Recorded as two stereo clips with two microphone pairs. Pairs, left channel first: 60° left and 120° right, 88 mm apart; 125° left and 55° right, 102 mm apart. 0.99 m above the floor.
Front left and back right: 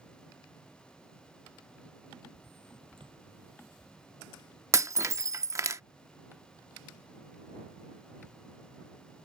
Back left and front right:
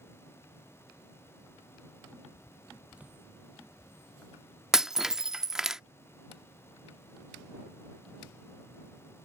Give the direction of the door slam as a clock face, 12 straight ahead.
5 o'clock.